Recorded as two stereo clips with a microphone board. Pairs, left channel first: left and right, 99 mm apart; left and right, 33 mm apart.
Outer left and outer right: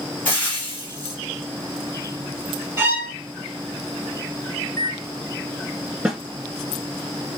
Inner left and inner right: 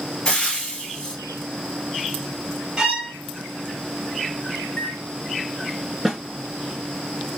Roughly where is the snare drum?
Centre.